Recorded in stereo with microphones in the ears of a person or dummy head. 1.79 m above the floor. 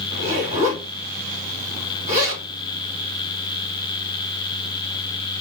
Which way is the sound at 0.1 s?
45° right (ahead or behind).